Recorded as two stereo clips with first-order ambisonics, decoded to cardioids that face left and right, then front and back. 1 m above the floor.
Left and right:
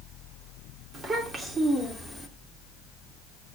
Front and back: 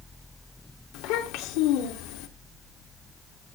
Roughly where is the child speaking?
Ahead.